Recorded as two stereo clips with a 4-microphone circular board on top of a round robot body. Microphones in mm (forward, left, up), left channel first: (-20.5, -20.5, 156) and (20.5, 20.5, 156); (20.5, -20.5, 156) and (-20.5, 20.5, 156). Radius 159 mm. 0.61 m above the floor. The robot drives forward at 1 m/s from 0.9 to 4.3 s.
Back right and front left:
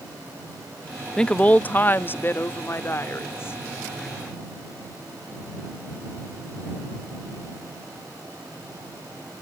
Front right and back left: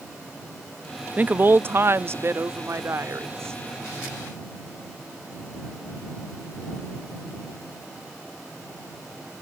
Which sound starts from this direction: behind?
A woman speaking, at 1.2 s.